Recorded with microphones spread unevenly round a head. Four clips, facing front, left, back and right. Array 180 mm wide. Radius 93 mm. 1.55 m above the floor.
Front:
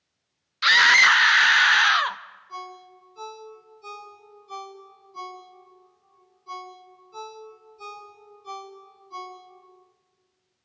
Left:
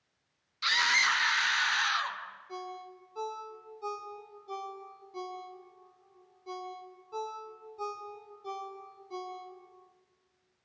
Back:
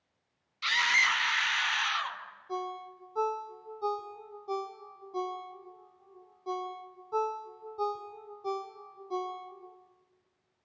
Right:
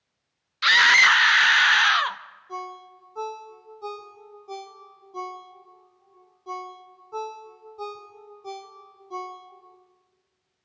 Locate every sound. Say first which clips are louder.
0.6 s a scream: right 11 dB, front 11 dB; 35° right, 1.1 m
2.5 s a ringtone: right 7 dB, back 3 dB; 160° right, 2 m